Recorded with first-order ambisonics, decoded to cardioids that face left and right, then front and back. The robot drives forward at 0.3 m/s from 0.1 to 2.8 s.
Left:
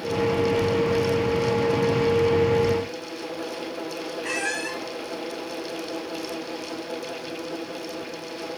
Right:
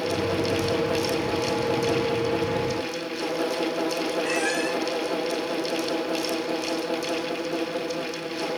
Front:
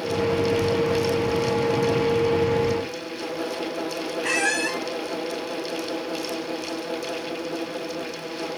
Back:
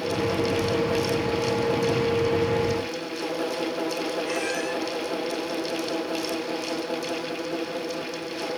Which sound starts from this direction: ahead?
A squeak, at 4.2 s.